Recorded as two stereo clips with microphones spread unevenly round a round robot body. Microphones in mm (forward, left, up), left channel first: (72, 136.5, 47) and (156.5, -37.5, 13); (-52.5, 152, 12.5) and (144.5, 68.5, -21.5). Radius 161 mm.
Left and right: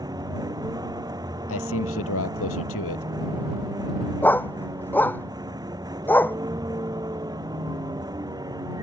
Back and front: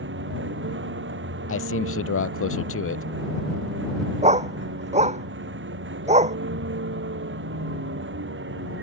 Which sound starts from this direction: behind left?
A man speaking, at 1.5 s.